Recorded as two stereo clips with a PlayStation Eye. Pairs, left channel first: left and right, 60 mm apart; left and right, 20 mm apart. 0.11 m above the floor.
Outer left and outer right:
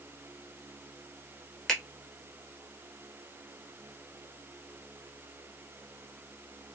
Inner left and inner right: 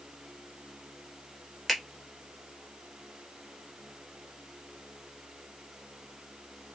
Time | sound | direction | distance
1.7 | a finger snap | 10° left (ahead or behind) | 1.0 m